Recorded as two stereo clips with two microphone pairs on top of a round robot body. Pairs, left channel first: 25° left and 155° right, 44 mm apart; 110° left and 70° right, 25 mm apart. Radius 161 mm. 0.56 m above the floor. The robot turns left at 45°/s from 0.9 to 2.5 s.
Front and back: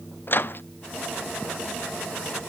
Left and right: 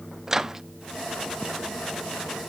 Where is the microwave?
10° left, 0.7 m.